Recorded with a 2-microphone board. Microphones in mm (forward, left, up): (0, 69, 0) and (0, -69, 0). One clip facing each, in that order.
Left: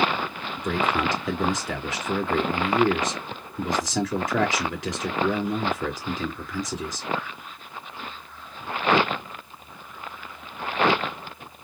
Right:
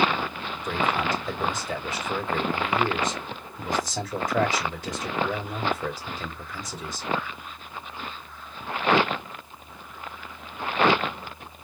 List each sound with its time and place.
0.6 s a man speaking: 85° left, 3 m